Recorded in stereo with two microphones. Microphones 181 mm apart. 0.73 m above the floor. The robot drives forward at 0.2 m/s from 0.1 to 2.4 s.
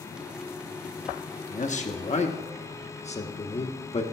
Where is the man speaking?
45° left (ahead or behind), 0.8 m; by 4.0 s 40° left (ahead or behind), 0.9 m.